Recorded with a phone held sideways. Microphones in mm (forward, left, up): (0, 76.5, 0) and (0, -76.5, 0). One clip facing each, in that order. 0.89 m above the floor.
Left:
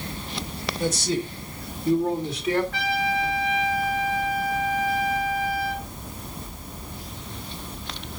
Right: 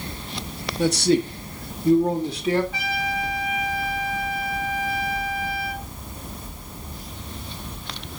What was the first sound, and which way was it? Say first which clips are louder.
A man speaking: right 7 dB; 70° right (ahead or behind).